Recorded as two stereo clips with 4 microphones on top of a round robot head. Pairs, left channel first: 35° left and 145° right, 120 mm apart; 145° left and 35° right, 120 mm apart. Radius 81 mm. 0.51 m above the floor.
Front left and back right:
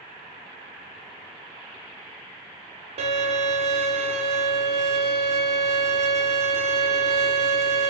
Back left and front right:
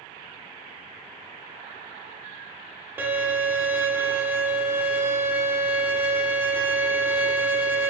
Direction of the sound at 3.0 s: 110° right.